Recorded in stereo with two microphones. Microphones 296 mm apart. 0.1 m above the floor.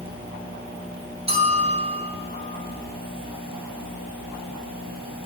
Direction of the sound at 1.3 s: 20° right (ahead or behind).